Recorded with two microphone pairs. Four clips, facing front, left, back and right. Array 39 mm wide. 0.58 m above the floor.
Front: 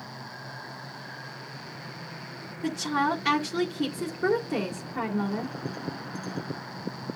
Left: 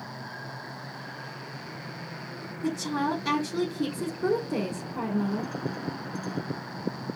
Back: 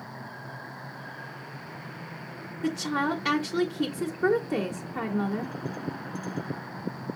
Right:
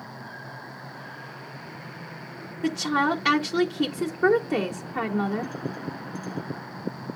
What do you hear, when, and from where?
2.6 s a woman speaking: 100° right, 1.6 m